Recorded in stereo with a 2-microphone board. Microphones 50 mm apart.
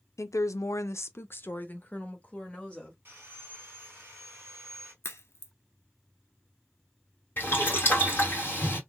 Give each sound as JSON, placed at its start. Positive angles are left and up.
{"t": 0.2, "sound": "a woman speaking", "side_deg": 70, "distance_m": 0.6}
{"t": 3.0, "sound": "sawing", "side_deg": -40, "distance_m": 2.5}
{"t": 5.0, "sound": "a crack", "side_deg": 55, "distance_m": 0.8}
{"t": 7.4, "sound": "boiling", "side_deg": 40, "distance_m": 2.0}